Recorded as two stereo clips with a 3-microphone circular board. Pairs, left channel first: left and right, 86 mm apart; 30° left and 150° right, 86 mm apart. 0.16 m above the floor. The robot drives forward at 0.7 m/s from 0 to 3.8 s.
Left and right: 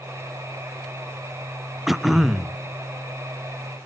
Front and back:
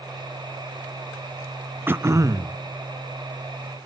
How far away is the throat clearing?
About 0.5 m.